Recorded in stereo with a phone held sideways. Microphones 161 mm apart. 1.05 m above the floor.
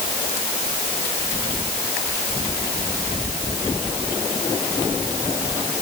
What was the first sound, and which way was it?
Only background noise.